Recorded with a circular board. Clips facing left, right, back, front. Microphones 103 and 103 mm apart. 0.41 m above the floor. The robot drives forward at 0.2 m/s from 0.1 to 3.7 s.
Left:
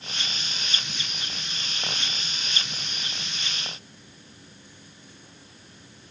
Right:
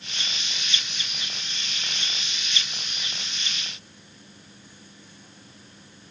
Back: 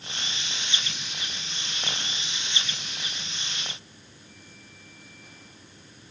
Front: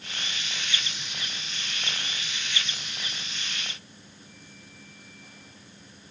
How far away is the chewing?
No chewing in this recording.